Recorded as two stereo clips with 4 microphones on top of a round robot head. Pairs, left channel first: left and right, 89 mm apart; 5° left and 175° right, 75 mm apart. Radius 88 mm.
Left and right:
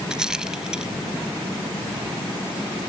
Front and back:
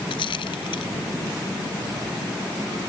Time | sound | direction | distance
0.1 | a rattle | 5° right | ?